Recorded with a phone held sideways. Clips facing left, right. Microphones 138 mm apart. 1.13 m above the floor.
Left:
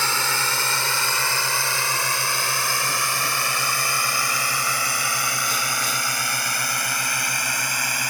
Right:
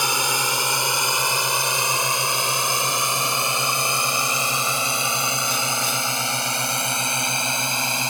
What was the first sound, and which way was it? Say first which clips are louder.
A drone: right 2 dB; 15° right (ahead or behind).